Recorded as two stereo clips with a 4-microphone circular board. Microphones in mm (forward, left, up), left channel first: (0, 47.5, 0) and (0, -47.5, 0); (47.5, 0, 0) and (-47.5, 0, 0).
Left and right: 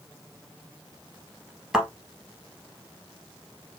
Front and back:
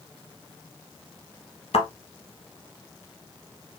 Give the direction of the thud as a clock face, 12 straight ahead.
12 o'clock.